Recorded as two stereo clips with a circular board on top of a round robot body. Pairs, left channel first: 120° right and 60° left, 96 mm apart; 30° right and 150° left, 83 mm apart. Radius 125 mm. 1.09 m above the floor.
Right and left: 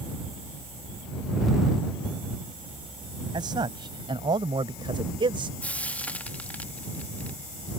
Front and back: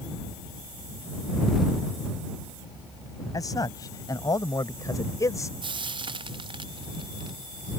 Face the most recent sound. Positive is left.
turn(degrees=165)